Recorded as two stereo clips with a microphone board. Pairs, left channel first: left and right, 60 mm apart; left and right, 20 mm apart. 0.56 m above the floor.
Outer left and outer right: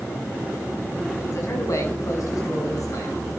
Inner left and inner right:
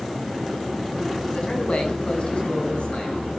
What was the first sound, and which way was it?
A man speaking, 55° left (ahead or behind).